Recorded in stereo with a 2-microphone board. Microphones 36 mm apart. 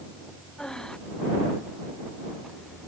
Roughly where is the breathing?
Centre.